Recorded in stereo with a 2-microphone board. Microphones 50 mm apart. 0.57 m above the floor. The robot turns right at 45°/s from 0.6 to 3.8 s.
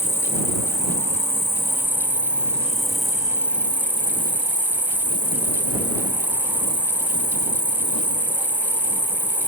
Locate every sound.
0.0 s an insect: 75° left; by 9.5 s 140° right